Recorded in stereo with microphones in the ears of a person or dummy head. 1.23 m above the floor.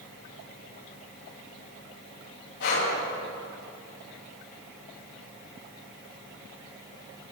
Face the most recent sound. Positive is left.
turn(degrees=70)  # may be behind; listen again after turning